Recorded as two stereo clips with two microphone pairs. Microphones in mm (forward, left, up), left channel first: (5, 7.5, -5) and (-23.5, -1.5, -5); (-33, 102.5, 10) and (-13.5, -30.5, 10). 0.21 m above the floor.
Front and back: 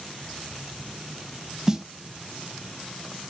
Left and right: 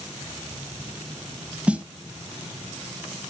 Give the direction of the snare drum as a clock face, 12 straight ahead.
5 o'clock.